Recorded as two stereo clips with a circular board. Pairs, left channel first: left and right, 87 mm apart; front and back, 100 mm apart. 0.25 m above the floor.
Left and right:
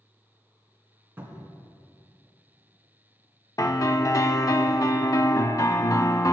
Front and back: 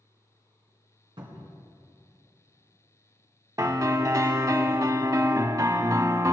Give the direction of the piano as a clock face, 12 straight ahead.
8 o'clock.